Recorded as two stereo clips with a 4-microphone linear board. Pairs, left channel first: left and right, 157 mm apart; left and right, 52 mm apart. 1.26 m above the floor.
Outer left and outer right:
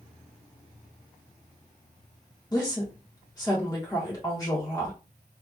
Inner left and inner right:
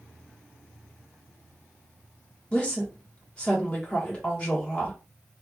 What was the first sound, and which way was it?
A woman speaking, 25° left (ahead or behind).